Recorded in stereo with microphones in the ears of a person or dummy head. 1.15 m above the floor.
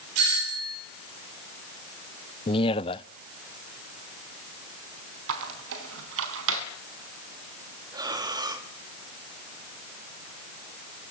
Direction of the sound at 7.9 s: 20° right (ahead or behind).